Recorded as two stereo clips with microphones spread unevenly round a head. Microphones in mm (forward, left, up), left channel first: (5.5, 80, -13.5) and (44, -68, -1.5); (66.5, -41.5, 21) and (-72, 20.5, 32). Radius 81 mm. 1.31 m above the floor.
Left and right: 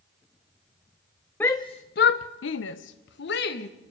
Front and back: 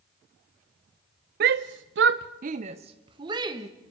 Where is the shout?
175° right, 0.5 m; by 3.7 s 90° left, 1.3 m.